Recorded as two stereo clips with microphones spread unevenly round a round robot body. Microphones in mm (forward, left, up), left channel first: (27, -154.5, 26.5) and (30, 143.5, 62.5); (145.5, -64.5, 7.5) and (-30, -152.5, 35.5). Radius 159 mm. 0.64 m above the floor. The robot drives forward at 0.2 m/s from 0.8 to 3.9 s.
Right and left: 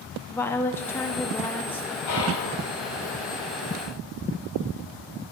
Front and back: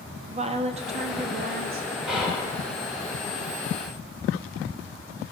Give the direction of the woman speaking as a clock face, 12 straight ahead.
5 o'clock.